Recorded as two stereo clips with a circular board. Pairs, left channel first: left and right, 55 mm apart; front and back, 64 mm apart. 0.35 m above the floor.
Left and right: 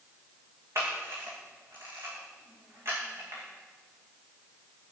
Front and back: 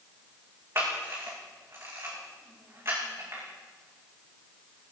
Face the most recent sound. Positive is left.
turn(degrees=-125)